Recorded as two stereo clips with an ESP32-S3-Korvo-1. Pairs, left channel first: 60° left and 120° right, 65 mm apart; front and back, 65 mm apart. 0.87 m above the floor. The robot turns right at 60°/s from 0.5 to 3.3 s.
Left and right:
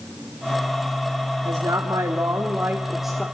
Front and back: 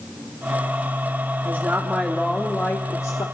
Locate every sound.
1.4 s a woman speaking: 130° right, 1.6 m; by 3.2 s 25° right, 1.6 m